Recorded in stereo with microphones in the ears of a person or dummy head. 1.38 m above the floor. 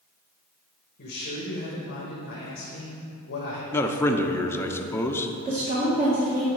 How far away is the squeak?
No squeak in this recording.